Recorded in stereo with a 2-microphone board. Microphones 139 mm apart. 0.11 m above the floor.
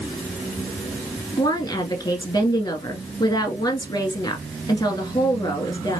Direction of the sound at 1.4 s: 30° left (ahead or behind).